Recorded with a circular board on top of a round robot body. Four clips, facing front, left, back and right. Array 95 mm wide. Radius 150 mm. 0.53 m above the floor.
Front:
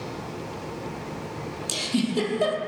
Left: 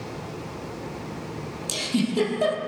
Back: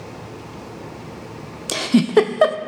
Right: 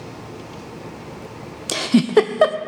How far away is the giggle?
About 0.6 m.